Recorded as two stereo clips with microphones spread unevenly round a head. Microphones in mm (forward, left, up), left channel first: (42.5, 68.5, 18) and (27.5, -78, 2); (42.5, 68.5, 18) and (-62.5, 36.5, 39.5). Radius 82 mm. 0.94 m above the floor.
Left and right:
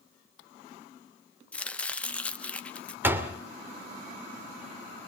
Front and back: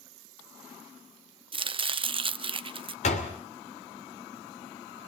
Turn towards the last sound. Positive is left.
turn(degrees=-20)